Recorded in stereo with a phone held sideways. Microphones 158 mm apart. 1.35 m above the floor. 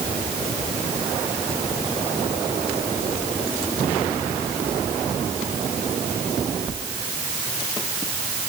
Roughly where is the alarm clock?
I don't hear an alarm clock.